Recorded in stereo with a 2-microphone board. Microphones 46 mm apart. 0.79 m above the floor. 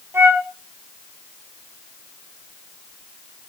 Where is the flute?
55° right (ahead or behind), 3 m.